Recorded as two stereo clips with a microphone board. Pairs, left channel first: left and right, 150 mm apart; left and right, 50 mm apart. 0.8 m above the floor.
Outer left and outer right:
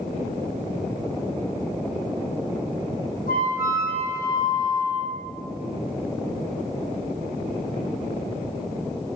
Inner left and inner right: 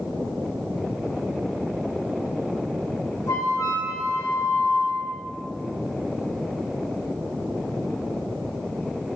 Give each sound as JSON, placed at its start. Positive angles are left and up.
{"t": 3.3, "sound": "a flute", "side_deg": 85, "distance_m": 0.6}